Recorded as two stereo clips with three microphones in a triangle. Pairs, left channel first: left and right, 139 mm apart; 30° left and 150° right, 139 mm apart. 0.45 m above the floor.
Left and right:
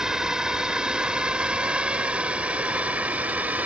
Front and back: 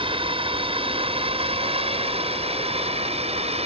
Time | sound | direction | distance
0.0 | a drone | 175° right | ?